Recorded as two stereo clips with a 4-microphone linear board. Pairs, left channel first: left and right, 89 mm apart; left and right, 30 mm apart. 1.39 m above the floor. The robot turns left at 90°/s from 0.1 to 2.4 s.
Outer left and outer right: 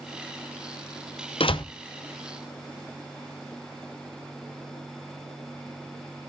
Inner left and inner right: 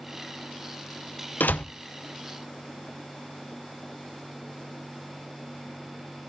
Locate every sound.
1.4 s a door slam: 80° left, 0.6 m; by 1.6 s 60° left (ahead or behind), 0.6 m